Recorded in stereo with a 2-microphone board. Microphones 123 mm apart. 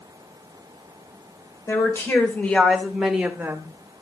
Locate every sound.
1.7 s a woman speaking: 25° left (ahead or behind), 3 m; by 3.7 s 25° right (ahead or behind), 2.5 m